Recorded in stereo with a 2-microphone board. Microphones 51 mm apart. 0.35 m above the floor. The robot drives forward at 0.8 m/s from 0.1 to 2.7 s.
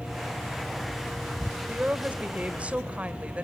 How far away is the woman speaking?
About 1.4 m.